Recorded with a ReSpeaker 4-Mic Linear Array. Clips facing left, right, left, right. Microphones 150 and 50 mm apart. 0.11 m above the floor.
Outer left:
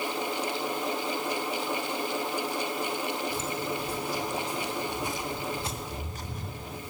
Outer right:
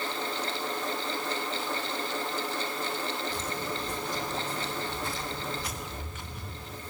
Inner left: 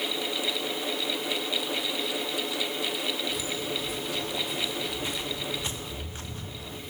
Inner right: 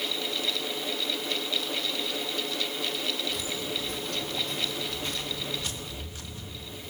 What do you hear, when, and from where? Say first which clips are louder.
3.3 s footsteps: outer left 2 dB, inner left 1 dB; 5° left (ahead or behind), 3 m; by 6.8 s 60° left (ahead or behind), 1.0 m